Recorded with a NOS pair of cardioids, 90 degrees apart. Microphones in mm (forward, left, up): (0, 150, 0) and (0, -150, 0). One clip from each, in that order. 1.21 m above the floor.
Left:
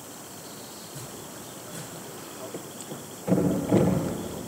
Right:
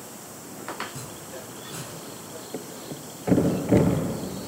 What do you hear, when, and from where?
0.8 s chopping: 35° right, 5 m
2.5 s a thud: 30° right, 3.5 m